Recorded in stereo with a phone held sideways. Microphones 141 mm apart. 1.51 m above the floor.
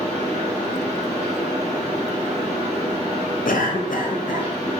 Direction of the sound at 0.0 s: 50° right (ahead or behind).